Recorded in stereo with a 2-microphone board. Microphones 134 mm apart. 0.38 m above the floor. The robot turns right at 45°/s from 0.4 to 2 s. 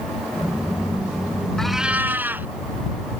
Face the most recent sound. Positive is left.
turn(degrees=-15)  # may be behind; listen again after turning